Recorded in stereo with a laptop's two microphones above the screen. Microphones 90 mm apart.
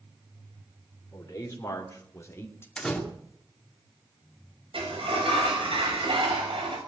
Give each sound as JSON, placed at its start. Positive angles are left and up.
{"t": 1.1, "sound": "a man speaking", "side_deg": 35, "distance_m": 3.0}
{"t": 2.8, "sound": "a door slam", "side_deg": 10, "distance_m": 1.9}
{"t": 4.7, "sound": "a sliding door", "side_deg": -80, "distance_m": 6.0}